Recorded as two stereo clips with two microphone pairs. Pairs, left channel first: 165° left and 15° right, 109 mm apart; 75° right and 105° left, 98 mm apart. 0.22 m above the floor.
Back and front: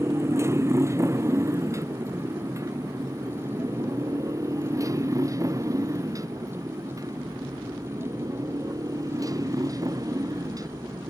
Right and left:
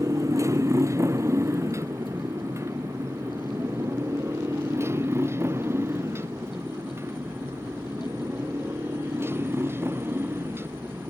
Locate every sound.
0.0 s a motorcycle: 50° left; by 11.1 s 40° left